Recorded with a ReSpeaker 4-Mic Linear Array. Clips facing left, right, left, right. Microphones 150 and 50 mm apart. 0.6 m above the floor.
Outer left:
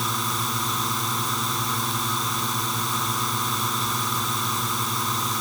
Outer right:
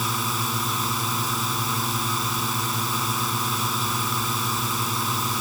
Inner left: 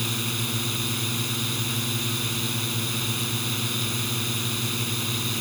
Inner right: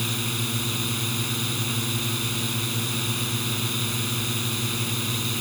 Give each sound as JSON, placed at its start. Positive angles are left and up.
{"t": 0.0, "sound": "a drone", "side_deg": 0}